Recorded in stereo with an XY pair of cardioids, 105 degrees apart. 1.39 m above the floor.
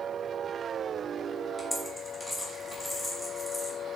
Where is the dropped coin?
25° left, 2.5 m.